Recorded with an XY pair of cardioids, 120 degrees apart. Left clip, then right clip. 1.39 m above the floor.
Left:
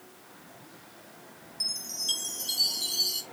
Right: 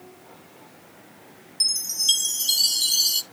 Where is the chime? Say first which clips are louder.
Right 9 dB; 55° right, 1.1 m.